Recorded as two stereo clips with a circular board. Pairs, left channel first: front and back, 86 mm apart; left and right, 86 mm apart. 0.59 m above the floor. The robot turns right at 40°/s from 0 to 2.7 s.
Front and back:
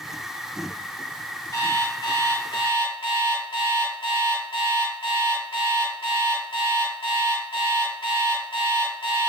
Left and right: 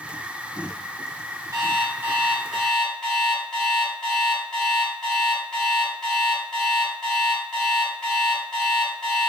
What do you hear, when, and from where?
1.5 s an alarm clock: 40° right, 1.7 m; by 9.3 s 5° left, 1.7 m